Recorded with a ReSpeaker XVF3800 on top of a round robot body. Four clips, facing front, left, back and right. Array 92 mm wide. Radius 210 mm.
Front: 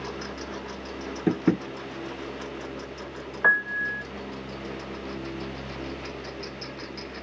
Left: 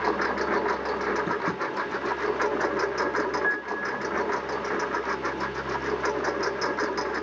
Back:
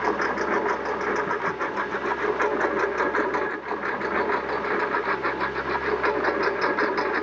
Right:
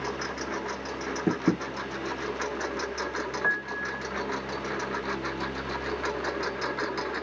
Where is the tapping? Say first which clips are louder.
Right 1 dB, front 2 dB; 30° right.